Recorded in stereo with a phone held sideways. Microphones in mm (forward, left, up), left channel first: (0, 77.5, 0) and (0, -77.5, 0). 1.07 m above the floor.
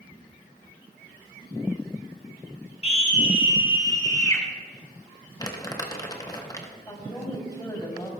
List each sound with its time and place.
2.8 s a scream: 40° left (ahead or behind), 2.5 m; by 4.4 s 20° left (ahead or behind), 3.5 m
5.4 s crumpling: 25° left (ahead or behind), 1.1 m
6.9 s a woman speaking: 25° left (ahead or behind), 3 m